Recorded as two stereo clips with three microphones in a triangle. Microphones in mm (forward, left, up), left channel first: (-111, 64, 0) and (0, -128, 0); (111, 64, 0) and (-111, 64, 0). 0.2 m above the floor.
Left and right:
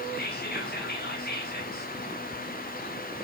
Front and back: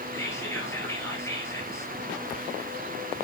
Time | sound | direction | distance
0.1 | whispering | 75° left | 3.5 m